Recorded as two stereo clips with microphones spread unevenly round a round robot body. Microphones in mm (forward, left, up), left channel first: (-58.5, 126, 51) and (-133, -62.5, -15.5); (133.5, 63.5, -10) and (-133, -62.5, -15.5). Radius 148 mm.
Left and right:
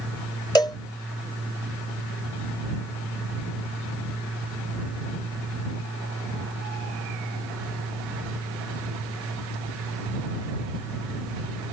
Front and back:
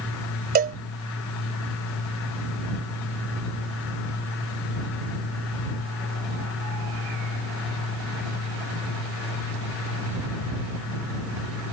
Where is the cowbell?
145° left.